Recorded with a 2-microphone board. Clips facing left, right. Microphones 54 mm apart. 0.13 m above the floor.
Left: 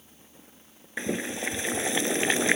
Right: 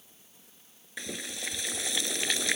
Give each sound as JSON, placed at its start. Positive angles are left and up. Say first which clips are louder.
{"t": 1.0, "sound": "boiling", "louder": "left 9 dB", "side_deg": 30}